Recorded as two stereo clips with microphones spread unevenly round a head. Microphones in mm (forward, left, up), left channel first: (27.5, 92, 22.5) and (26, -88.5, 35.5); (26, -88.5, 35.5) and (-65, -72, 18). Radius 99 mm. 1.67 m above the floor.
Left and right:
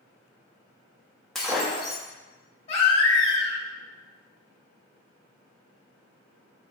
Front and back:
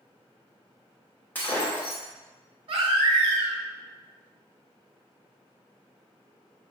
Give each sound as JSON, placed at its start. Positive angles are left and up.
{"t": 1.4, "sound": "breaking glass", "azimuth_deg": -5, "distance_m": 1.1}
{"t": 2.7, "sound": "a baby crying", "azimuth_deg": 140, "distance_m": 1.4}